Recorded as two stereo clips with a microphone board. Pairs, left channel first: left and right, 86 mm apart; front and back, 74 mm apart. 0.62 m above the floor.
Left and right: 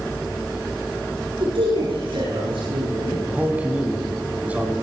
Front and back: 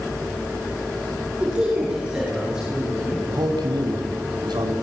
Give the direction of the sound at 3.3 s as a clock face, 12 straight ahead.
5 o'clock.